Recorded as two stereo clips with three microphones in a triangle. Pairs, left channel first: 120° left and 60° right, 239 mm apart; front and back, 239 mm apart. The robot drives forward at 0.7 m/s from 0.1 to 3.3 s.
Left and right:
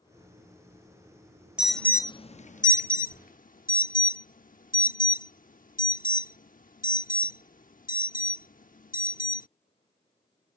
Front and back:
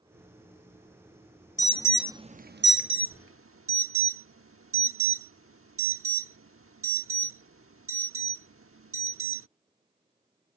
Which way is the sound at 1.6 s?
20° left.